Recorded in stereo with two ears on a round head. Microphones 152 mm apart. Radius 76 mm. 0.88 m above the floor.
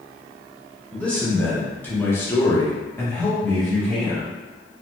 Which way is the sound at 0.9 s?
5° left (ahead or behind).